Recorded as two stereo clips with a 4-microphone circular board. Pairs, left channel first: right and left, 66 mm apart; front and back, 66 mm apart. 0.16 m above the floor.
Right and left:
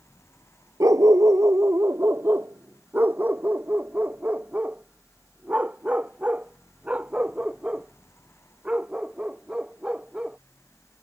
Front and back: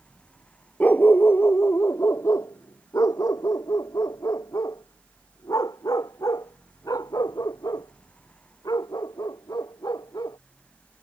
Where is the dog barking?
65° left; by 10.4 s 15° left.